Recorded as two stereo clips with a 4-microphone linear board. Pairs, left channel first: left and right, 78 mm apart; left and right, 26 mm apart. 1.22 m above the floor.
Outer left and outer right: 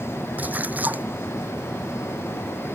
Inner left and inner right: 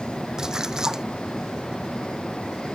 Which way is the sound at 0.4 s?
20° right (ahead or behind).